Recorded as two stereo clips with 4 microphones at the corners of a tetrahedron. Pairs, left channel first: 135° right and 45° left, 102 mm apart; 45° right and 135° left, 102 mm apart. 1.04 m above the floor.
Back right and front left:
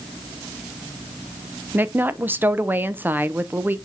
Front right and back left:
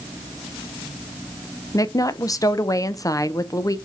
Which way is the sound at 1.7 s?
15° right.